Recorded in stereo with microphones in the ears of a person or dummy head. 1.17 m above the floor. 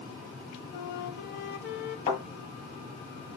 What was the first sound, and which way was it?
A flute, 60° left (ahead or behind).